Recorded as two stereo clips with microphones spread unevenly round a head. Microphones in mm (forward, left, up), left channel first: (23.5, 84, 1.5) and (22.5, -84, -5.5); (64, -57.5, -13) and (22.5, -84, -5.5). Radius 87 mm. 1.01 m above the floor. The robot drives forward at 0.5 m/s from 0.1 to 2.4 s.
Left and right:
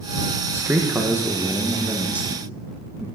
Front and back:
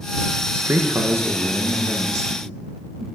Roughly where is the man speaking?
Behind right.